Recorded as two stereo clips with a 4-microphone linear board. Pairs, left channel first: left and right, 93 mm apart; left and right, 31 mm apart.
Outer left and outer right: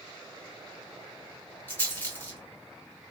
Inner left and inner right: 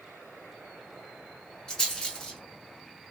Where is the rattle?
20° left (ahead or behind), 1.6 m.